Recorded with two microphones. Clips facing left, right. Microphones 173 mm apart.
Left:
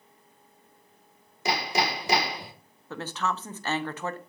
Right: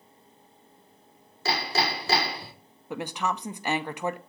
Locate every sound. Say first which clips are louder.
1.4 s hammering: left 1 dB; 15° left (ahead or behind), 1.2 m
2.9 s a woman speaking: right 1 dB; 15° right (ahead or behind), 0.7 m